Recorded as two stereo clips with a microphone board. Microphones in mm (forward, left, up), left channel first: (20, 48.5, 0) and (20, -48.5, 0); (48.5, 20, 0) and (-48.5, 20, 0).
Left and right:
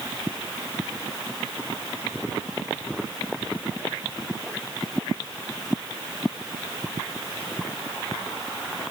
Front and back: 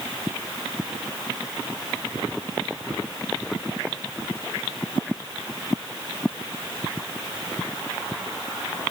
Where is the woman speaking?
I don't hear a woman speaking.